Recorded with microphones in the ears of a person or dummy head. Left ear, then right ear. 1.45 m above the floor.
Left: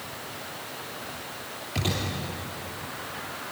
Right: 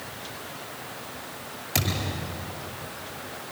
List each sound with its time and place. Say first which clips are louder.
1.8 s a thud: right 1 dB; 50° right (ahead or behind), 8.5 m